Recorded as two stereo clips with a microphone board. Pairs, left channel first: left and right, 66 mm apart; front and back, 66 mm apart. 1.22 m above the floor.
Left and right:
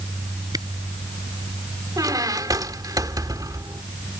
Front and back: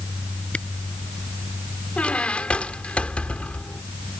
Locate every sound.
0.5 s a camera shutter: 70° right
2.0 s a squeak: 70° right